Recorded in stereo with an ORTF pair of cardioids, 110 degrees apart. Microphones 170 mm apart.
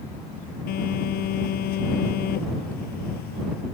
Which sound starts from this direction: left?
A phone buzzing, at 0.7 s.